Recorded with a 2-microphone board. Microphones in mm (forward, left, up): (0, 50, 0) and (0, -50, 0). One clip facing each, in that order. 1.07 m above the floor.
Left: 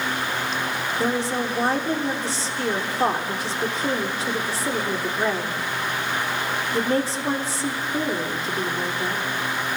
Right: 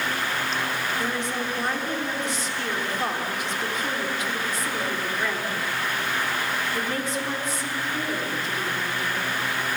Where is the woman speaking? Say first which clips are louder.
Left 4 dB; 35° left (ahead or behind), 3.5 m.